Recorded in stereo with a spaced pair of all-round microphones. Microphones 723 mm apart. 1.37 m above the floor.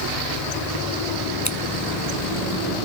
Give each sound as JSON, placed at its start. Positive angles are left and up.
{"t": 1.4, "sound": "scissors", "side_deg": 25, "distance_m": 1.0}